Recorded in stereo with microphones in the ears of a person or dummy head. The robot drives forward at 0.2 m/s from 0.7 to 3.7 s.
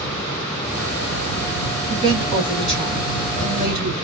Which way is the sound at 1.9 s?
25° right (ahead or behind).